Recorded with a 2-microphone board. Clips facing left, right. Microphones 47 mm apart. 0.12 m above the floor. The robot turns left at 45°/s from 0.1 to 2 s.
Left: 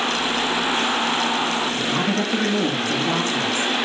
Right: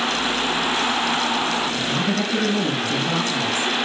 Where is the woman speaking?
60° left (ahead or behind), 8 m; by 3.7 s 45° left (ahead or behind), 8 m.